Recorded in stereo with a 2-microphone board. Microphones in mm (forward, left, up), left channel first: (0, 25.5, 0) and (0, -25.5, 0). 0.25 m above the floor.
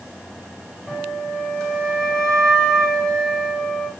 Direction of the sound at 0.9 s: 10° left (ahead or behind).